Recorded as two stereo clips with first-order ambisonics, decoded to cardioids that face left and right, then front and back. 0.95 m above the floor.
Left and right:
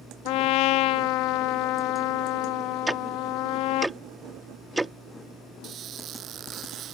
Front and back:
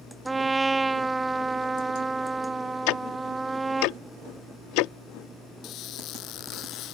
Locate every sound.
0.2 s a trumpet: 100° left
2.9 s ticking: 5° right
5.6 s a squeak: 40° right